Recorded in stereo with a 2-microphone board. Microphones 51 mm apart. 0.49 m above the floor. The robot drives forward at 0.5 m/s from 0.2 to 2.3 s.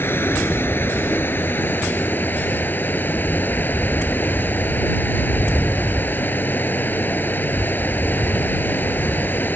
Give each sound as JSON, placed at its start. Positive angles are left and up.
{"t": 0.0, "sound": "running water", "side_deg": 45}